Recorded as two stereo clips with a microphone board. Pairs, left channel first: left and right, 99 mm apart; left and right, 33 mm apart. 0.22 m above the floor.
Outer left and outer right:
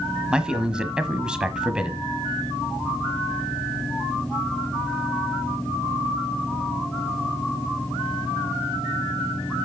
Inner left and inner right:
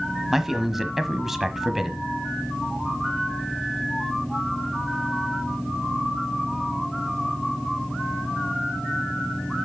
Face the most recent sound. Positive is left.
turn(degrees=-10)  # may be behind; listen again after turning